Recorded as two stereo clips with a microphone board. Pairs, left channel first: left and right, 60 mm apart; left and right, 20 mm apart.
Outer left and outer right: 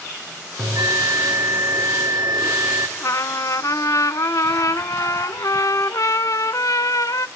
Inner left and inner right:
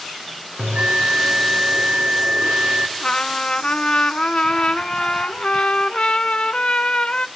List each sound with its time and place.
0.6 s a bell: 85° right, 6 m
3.0 s a trumpet: 65° left (ahead or behind), 0.6 m